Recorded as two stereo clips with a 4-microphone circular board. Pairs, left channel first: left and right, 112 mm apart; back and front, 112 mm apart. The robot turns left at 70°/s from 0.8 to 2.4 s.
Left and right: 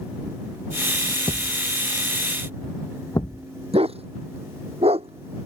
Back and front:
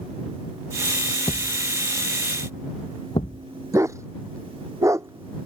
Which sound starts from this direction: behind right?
A thud, at 1.3 s.